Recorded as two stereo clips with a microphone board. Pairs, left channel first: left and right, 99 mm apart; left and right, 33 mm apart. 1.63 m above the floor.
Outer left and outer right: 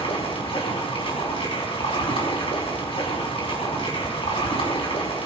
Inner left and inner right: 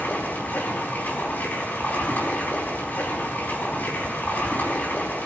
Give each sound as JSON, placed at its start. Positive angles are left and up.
{"t": 0.0, "sound": "running water", "side_deg": 75, "distance_m": 4.5}